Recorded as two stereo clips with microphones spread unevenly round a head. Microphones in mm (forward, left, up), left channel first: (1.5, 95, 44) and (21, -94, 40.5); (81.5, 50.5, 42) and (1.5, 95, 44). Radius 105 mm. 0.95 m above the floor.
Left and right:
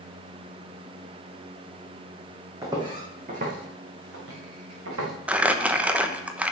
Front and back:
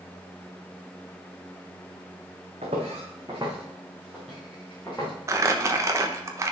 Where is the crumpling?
165° right, 0.9 m.